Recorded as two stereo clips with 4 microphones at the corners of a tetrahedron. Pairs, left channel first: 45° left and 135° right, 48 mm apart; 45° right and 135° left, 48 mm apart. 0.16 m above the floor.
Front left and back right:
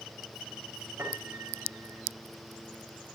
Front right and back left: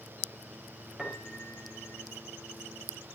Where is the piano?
145° right, 5 m.